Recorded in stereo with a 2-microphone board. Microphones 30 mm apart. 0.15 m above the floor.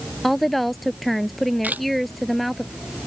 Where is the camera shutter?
70° right (ahead or behind).